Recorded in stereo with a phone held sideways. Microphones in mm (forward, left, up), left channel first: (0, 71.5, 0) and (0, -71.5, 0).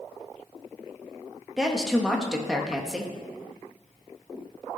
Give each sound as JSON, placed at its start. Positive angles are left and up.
{"t": 1.6, "sound": "a woman speaking", "side_deg": -5, "distance_m": 1.2}